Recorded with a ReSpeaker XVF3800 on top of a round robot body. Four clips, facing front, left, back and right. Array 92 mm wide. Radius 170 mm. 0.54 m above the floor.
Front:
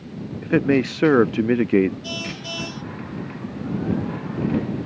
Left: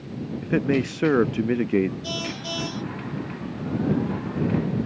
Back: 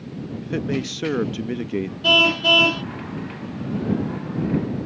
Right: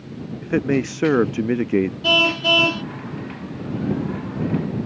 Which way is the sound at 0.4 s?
15° right.